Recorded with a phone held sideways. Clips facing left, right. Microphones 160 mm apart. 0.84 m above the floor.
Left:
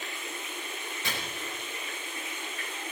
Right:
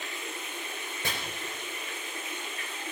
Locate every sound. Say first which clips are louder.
1.0 s chopping: right 2 dB; 50° right (ahead or behind), 4 m